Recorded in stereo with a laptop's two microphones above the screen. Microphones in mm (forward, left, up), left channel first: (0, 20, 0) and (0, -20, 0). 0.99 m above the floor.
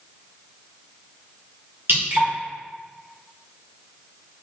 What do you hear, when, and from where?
1.9 s dripping: 60° right (ahead or behind), 1.3 m